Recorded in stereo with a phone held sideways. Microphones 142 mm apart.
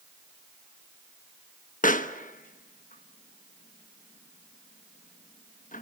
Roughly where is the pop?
Left.